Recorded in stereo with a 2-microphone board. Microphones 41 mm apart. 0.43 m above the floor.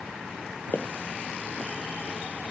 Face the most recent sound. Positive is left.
turn(degrees=50)  # may be behind; listen again after turning